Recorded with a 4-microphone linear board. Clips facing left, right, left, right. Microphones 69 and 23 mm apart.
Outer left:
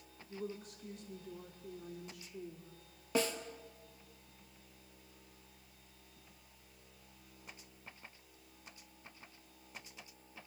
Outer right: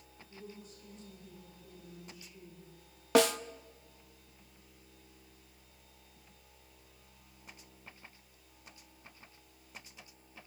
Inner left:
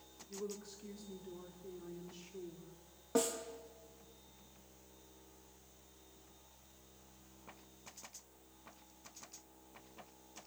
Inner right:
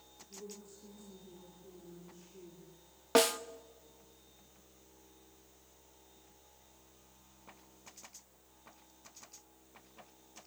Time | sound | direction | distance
0.3 | a woman speaking | 70° left (ahead or behind) | 2.5 m
3.1 | a snare drum | 75° right (ahead or behind) | 0.7 m